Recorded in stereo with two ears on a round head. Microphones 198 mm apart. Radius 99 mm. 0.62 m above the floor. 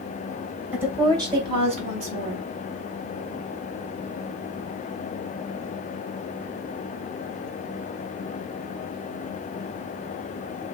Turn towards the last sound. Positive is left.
turn(degrees=-40)  # may be behind; listen again after turning